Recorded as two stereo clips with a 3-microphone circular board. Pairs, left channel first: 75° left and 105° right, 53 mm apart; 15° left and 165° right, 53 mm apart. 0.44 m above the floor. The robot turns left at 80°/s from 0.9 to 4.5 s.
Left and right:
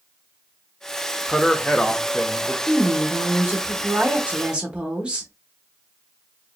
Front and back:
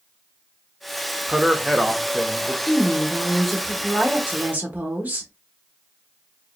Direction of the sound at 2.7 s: 10° right.